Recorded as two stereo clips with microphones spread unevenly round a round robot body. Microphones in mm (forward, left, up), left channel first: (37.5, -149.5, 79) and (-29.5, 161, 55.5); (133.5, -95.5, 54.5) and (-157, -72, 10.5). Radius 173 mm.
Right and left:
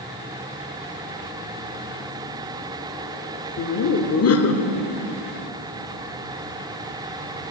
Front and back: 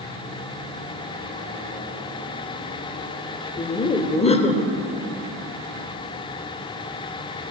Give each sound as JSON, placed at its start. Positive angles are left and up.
{"t": 3.6, "sound": "laughter", "azimuth_deg": -75, "distance_m": 1.0}